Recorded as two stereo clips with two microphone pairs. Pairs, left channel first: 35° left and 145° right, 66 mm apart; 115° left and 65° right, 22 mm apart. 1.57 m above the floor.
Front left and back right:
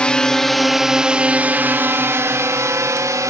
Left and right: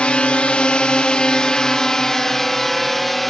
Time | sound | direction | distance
0.0 | a drone | 105° left | ?